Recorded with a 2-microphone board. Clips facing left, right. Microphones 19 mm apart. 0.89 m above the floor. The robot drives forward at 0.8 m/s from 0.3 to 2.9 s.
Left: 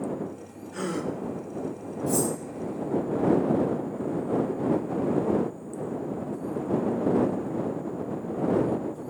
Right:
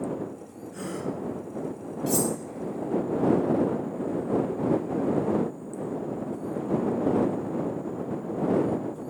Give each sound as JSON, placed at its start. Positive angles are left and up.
{"t": 0.7, "sound": "a gasp", "side_deg": 20, "distance_m": 1.4}
{"t": 2.1, "sound": "cutlery clinking", "side_deg": -60, "distance_m": 1.5}